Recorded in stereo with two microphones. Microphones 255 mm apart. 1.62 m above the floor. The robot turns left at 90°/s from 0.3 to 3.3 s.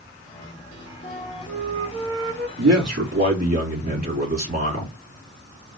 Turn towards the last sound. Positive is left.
turn(degrees=-145)